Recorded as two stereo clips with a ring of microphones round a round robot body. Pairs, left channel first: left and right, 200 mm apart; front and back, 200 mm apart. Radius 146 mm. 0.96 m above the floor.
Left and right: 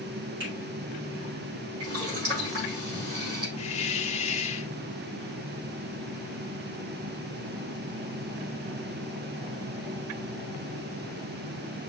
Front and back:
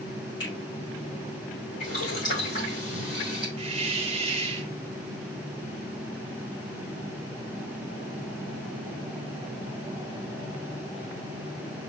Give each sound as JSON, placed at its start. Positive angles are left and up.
{"t": 0.4, "sound": "a finger snap", "azimuth_deg": -45, "distance_m": 3.5}
{"t": 1.8, "sound": "boiling", "azimuth_deg": -65, "distance_m": 4.0}
{"t": 3.6, "sound": "a hiss", "azimuth_deg": 130, "distance_m": 0.9}